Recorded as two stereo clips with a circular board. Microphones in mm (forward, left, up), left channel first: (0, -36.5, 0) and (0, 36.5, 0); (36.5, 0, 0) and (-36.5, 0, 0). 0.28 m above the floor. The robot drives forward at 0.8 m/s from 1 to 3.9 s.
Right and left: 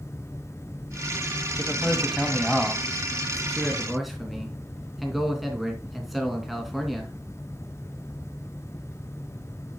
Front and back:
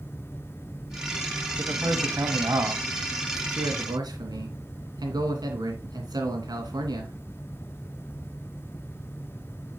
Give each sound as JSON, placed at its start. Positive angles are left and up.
{"t": 1.6, "sound": "a man speaking", "azimuth_deg": 180, "distance_m": 1.4}